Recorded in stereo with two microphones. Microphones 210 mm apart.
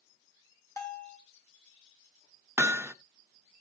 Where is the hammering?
10° right (ahead or behind), 0.6 m.